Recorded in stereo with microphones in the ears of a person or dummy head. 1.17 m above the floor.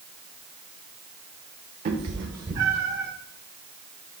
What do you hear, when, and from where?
1.9 s a cat meowing: 40° right (ahead or behind), 1.0 m; by 3.1 s 20° right (ahead or behind), 2.0 m